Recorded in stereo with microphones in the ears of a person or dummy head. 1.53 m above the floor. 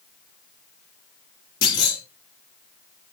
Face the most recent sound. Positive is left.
turn(degrees=85)